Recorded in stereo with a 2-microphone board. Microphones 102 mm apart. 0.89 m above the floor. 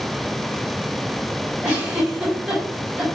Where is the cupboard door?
I don't hear a cupboard door.